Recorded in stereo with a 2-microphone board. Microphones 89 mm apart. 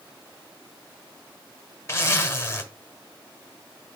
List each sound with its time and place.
1.9 s a zipper: 30° left (ahead or behind), 1.3 m